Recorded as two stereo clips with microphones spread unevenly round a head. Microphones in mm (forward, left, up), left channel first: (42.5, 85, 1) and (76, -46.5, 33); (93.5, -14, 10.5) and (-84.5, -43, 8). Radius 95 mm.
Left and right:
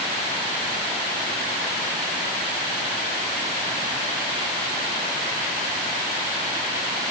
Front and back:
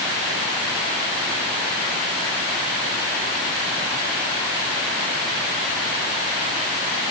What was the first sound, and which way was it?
Only background noise.